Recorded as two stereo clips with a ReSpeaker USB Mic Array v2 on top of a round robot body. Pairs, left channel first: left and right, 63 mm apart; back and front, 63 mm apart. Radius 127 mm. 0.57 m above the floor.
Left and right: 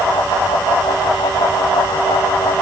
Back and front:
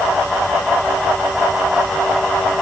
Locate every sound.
Only background noise.